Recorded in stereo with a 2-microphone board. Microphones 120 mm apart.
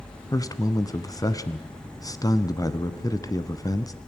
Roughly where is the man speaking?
Left.